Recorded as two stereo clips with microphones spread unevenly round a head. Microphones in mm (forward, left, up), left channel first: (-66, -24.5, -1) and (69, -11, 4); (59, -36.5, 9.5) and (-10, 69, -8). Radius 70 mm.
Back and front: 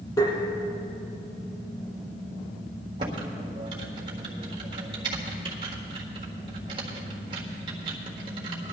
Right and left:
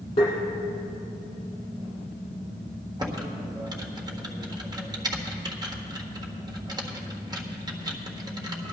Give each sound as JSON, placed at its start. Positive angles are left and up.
{"t": 0.2, "sound": "tapping", "azimuth_deg": -110, "distance_m": 5.0}
{"t": 3.0, "sound": "typing on a keyboard", "azimuth_deg": 65, "distance_m": 1.6}